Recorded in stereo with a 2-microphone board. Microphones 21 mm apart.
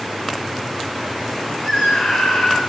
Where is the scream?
50° left (ahead or behind), 9.5 m.